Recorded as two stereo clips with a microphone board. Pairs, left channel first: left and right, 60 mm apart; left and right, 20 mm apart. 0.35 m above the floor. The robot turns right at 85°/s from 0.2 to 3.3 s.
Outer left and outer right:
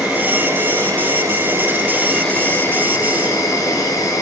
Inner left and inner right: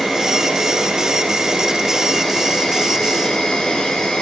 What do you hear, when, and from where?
0.0 s an insect: 165° right, 7.5 m; by 4.2 s 100° left, 7.5 m